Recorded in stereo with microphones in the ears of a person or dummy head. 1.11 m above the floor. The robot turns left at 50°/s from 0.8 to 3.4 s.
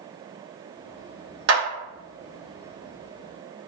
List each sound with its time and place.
1.5 s a clap: 80° right, 1.0 m; by 1.6 s 70° right (ahead or behind), 1.0 m